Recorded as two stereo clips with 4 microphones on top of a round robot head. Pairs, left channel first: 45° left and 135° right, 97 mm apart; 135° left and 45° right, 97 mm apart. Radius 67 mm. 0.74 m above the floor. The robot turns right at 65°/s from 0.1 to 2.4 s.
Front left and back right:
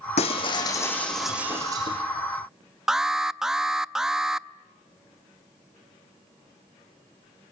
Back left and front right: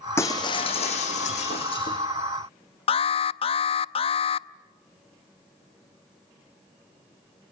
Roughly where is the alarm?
Behind left.